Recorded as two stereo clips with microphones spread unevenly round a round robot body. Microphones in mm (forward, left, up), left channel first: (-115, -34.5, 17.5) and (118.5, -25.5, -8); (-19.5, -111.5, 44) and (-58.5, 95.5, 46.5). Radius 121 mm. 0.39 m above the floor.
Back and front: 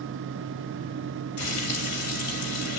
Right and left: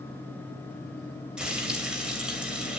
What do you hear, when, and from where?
1.4 s frying: 175° right, 2.5 m